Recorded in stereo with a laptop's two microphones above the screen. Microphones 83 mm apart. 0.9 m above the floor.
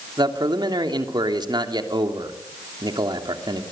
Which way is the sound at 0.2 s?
60° right (ahead or behind).